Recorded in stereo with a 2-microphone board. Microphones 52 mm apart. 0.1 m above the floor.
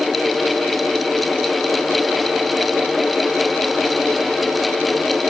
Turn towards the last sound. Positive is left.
No sound to turn to.